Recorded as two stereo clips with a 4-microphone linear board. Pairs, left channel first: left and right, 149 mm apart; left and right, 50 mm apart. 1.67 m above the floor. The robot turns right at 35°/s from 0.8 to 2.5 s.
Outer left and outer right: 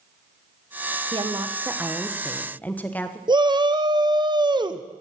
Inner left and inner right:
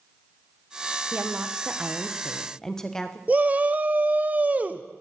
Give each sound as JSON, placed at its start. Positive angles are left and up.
{"t": 1.1, "sound": "a woman speaking", "azimuth_deg": -35, "distance_m": 1.2}
{"t": 3.3, "sound": "a shout", "side_deg": -30, "distance_m": 0.8}